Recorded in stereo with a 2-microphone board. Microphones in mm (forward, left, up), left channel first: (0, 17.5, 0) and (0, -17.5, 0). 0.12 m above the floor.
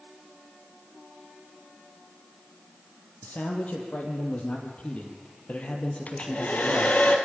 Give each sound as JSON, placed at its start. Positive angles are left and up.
{"t": 3.2, "sound": "a man speaking", "side_deg": 55, "distance_m": 4.0}
{"t": 6.1, "sound": "a hair dryer", "side_deg": 45, "distance_m": 2.5}